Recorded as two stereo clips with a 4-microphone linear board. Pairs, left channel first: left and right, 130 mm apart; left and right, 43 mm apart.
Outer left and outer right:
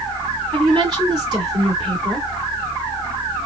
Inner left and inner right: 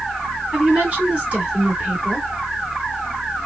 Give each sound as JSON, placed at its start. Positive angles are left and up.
{"t": 0.5, "sound": "a woman speaking", "side_deg": -35, "distance_m": 1.9}